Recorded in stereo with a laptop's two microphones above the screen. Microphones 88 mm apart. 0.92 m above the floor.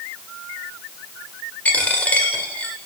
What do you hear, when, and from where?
1.6 s a dropped coin: 15° left (ahead or behind), 1.6 m